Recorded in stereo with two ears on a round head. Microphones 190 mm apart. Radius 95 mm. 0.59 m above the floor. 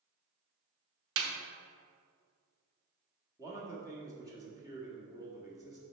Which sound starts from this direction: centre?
A man speaking, at 3.4 s.